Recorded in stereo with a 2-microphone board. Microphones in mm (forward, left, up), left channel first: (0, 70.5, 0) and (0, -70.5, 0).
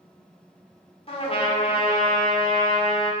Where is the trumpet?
40° left (ahead or behind), 1.8 m.